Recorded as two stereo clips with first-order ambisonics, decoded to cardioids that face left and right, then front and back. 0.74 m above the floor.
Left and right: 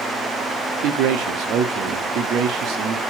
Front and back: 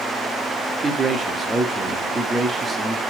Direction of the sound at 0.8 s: 105° right.